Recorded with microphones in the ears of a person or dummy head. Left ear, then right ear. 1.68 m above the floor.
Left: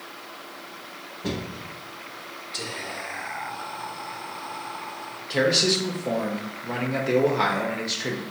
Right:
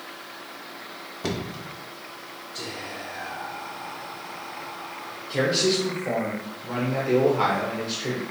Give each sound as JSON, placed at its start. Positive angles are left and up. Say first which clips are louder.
{"t": 1.2, "sound": "knocking", "louder": "right 1 dB", "side_deg": -55, "distance_m": 0.9}
{"t": 2.5, "sound": "whispering", "louder": "left 2 dB", "side_deg": 60, "distance_m": 1.0}
{"t": 5.3, "sound": "a man speaking", "louder": "left 2 dB", "side_deg": 15, "distance_m": 0.8}